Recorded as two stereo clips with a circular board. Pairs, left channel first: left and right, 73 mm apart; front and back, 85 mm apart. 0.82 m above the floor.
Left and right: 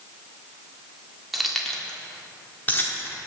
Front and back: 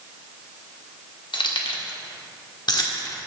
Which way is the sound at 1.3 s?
5° right.